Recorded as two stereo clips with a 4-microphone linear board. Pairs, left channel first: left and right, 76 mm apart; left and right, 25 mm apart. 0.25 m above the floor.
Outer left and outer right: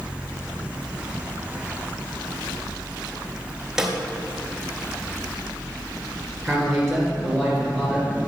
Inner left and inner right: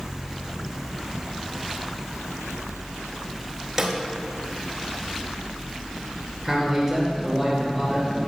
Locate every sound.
3.8 s a snare drum: 10° right (ahead or behind), 1.3 m
6.4 s a man speaking: 5° left (ahead or behind), 3 m